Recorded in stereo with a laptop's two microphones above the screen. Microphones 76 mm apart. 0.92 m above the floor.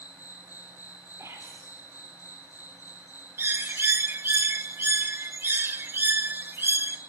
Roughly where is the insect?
Left.